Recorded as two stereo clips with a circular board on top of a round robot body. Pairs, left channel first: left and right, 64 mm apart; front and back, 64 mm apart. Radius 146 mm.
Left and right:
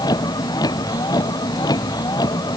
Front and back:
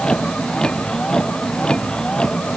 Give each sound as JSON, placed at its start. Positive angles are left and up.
{"t": 0.0, "sound": "a vehicle", "azimuth_deg": 80}